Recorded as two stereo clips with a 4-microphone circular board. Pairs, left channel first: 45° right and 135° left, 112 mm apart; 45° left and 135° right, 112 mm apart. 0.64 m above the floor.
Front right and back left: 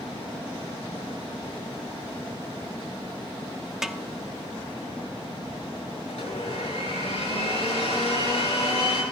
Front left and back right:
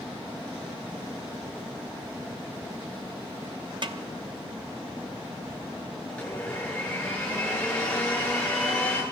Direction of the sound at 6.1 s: 35° right.